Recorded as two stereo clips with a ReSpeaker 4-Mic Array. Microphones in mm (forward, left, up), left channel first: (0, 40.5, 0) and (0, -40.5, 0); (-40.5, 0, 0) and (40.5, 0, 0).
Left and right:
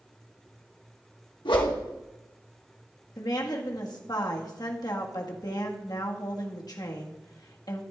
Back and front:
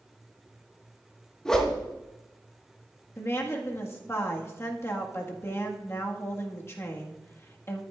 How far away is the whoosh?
About 1.6 m.